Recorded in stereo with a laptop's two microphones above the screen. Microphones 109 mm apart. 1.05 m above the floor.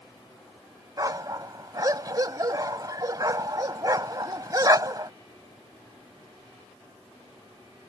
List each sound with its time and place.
1.0 s a dog barking: 35° right (ahead or behind)